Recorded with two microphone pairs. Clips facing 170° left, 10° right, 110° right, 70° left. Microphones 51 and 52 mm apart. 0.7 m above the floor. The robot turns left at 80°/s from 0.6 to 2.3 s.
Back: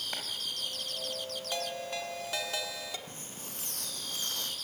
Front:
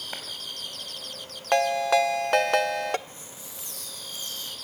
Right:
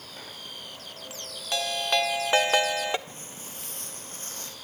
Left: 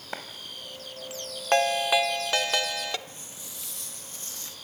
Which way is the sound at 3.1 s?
150° right.